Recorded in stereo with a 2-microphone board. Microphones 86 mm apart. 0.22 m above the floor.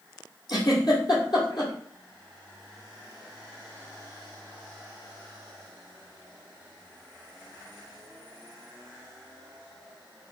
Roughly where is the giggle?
Left.